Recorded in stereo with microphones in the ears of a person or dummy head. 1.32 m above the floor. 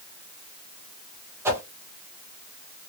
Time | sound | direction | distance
1.4 | a whoosh | 10° right (ahead or behind) | 0.6 m